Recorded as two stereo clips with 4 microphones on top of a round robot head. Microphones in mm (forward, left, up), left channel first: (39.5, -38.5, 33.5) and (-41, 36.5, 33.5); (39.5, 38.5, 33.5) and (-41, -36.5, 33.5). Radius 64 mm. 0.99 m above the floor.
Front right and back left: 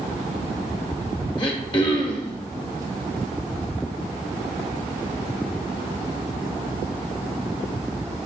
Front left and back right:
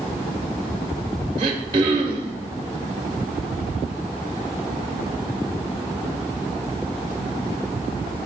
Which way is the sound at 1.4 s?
90° right.